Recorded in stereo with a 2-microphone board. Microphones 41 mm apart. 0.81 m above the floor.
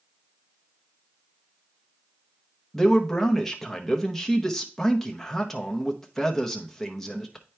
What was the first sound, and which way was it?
A man speaking, 5° left (ahead or behind).